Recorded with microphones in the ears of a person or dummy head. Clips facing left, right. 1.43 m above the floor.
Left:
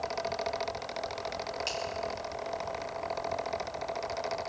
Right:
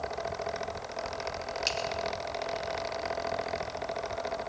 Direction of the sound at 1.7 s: 30° right (ahead or behind).